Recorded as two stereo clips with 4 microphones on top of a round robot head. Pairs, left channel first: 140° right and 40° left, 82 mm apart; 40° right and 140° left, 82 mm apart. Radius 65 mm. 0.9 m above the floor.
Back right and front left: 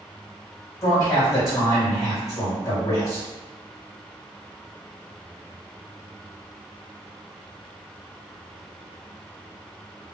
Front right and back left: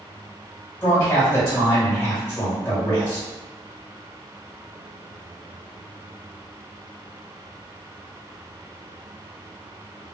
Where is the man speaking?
95° right, 2.0 m.